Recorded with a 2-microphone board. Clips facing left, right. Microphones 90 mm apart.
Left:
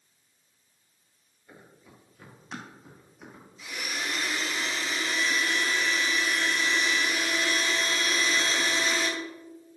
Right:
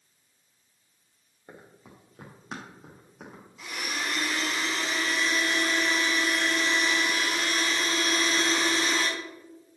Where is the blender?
85° right, 5.5 m.